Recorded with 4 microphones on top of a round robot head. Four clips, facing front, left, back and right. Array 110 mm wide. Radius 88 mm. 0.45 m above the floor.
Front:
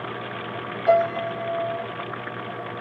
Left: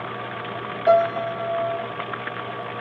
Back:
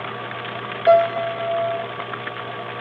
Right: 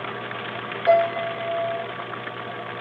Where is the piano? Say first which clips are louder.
Left 1 dB, back 5 dB; 160° left, 1.5 m.